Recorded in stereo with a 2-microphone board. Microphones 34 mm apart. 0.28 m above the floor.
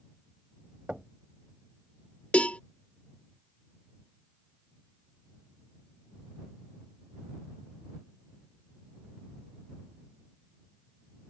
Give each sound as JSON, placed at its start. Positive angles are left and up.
{"t": 0.9, "sound": "knocking", "side_deg": -35}
{"t": 2.3, "sound": "a cowbell", "side_deg": 40}